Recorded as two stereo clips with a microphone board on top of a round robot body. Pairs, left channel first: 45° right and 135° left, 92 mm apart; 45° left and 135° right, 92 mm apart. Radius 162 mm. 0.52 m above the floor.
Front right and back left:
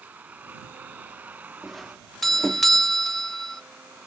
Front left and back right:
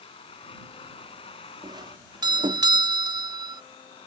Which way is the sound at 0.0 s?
60° left.